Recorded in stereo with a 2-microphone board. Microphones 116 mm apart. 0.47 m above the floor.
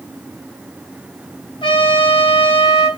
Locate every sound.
1.6 s a trumpet: 40° left (ahead or behind), 3 m